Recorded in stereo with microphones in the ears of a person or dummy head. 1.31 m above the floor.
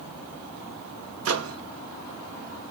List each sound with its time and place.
1.2 s a microwave: 70° right (ahead or behind), 0.7 m